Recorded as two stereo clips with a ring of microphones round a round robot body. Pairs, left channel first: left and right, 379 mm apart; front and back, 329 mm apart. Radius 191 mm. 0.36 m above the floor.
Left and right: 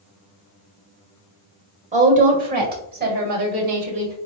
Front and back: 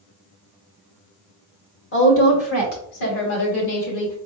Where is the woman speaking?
30° right, 1.5 m.